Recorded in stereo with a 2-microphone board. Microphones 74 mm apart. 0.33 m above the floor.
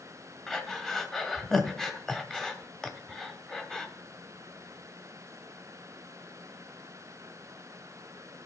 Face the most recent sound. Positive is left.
turn(degrees=10)  # may be behind; listen again after turning